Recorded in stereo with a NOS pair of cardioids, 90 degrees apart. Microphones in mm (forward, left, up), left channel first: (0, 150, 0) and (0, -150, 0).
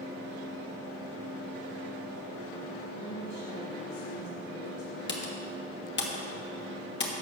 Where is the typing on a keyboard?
35° left, 1.5 m.